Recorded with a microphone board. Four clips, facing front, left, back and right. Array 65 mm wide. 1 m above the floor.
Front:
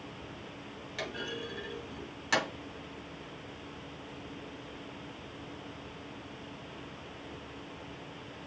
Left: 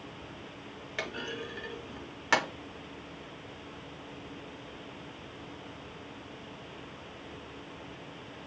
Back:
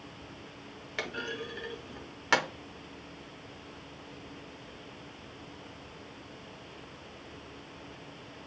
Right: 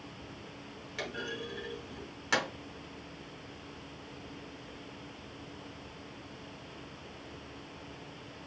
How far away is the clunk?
About 0.8 m.